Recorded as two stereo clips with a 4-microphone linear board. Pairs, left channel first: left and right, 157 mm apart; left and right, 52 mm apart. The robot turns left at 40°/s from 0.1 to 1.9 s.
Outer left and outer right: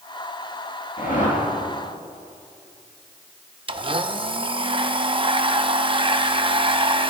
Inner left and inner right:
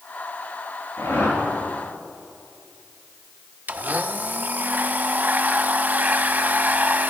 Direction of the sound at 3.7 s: 35° right (ahead or behind).